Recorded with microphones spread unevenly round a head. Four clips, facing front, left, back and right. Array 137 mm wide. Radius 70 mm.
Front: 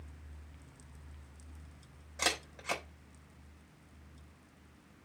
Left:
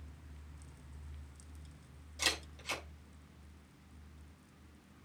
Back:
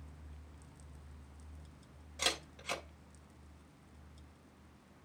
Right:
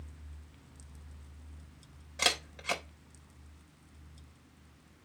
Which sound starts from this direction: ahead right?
A camera shutter, at 2.2 s.